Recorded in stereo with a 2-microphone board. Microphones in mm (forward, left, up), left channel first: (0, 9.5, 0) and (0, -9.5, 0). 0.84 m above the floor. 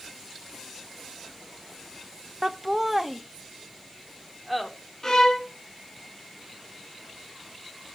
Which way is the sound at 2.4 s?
20° right (ahead or behind).